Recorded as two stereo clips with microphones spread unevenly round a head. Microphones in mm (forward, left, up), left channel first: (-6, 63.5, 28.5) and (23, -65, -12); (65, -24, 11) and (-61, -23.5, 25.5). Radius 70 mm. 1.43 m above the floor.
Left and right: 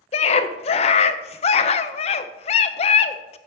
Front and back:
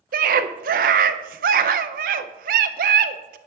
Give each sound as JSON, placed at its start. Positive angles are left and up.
{"t": 0.1, "sound": "a scream", "azimuth_deg": 155, "distance_m": 0.5}